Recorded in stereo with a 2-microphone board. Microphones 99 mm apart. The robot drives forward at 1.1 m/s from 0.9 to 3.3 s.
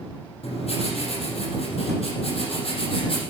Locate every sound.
0.4 s writing: 80° left, 5 m; by 3.2 s 65° left (ahead or behind), 5.5 m